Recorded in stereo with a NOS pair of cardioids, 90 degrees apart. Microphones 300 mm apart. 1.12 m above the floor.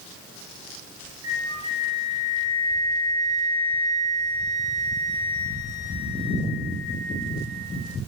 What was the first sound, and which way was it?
A flute, 60° right.